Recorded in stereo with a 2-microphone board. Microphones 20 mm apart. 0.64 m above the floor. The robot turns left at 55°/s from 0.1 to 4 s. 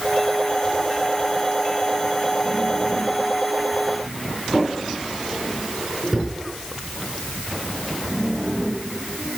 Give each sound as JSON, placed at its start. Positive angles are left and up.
{"t": 4.5, "sound": "a drawer", "side_deg": -10, "distance_m": 4.0}